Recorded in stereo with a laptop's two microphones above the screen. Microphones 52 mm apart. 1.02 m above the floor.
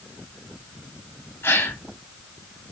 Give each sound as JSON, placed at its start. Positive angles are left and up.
{"t": 1.4, "sound": "a gasp", "side_deg": 55, "distance_m": 1.7}